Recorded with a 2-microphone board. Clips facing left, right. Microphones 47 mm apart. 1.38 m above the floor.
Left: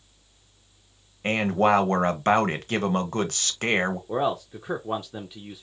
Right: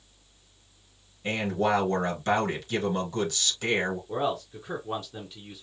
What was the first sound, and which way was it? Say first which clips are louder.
A man speaking: left 5 dB; 60° left (ahead or behind).